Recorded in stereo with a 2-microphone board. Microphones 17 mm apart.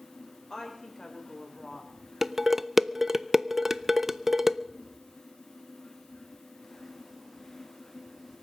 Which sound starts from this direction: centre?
Dishes clattering, at 2.2 s.